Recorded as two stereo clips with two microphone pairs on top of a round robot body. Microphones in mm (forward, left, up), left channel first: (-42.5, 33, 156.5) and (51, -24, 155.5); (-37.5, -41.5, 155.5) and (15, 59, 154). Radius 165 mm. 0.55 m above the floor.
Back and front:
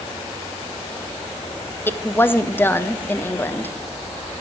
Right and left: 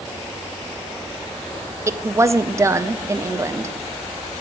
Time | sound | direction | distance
1.9 | a woman speaking | 95° left | 0.7 m